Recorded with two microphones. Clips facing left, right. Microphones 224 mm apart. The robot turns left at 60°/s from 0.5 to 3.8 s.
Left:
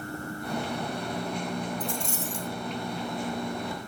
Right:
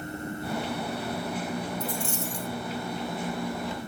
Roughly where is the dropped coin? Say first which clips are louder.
Right 1 dB; ahead left.